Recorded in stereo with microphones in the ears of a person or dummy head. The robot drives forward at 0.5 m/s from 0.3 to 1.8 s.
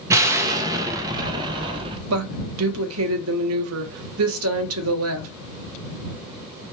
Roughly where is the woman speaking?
Right.